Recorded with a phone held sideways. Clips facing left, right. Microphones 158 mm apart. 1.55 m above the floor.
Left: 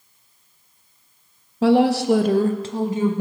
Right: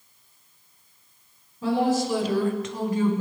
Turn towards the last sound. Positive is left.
turn(degrees=15)  # may be behind; listen again after turning